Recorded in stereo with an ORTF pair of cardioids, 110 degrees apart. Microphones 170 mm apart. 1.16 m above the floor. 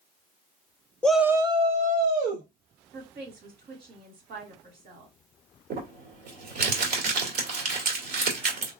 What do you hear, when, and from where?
1.0 s a shout: 5° left, 0.6 m; by 2.5 s 65° right, 1.2 m
2.9 s a woman speaking: 65° right, 2.5 m
5.7 s crumpling: 65° right, 1.9 m